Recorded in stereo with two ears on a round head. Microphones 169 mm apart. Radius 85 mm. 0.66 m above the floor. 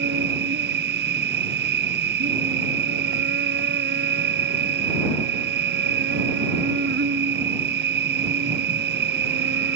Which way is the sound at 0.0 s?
55° right (ahead or behind).